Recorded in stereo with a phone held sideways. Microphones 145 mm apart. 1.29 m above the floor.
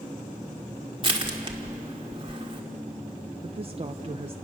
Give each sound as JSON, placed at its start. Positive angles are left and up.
{"t": 1.0, "sound": "crushing", "side_deg": -35, "distance_m": 1.8}
{"t": 3.4, "sound": "a woman speaking", "side_deg": -40, "distance_m": 0.8}